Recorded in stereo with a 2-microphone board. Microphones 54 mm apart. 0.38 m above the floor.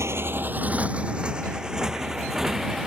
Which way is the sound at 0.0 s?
60° right (ahead or behind).